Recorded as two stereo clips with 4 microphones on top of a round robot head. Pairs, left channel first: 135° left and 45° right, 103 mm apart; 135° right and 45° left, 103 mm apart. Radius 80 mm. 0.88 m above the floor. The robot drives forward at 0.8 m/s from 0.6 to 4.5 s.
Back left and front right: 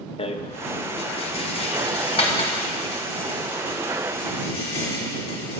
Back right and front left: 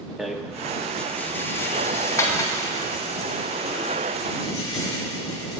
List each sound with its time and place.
0.2 s a rattle: 130° left, 0.9 m; by 5.6 s 170° left, 3.5 m